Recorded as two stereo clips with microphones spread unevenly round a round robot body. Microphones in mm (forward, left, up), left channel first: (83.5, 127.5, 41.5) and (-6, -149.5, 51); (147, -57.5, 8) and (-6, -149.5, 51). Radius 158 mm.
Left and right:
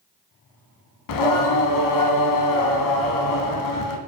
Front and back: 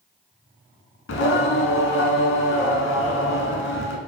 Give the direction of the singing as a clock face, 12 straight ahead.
10 o'clock.